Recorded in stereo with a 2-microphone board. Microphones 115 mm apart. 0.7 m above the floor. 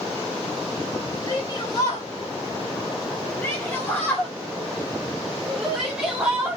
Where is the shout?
40° left (ahead or behind), 3.5 m; by 6.6 s 20° right (ahead or behind), 1.9 m.